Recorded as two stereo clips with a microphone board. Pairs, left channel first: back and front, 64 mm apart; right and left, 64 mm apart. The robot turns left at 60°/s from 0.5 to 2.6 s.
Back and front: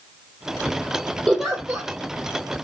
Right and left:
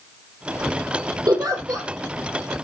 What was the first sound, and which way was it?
A giggle, 90° left.